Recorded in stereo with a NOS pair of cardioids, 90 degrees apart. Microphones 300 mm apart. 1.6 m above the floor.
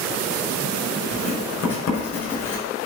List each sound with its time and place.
1.1 s writing: 55° left, 5.5 m